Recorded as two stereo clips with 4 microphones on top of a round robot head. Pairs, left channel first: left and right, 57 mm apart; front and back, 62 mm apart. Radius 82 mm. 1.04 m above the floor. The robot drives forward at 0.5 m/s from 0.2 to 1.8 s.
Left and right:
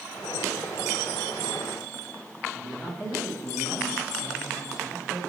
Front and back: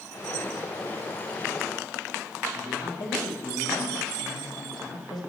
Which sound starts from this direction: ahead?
A man speaking, at 2.5 s.